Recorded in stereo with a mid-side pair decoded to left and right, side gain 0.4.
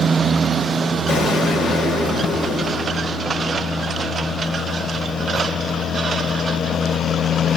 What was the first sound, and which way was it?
An explosion, 60° left.